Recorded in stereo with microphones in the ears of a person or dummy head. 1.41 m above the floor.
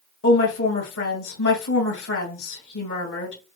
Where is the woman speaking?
70° left (ahead or behind), 1.8 m.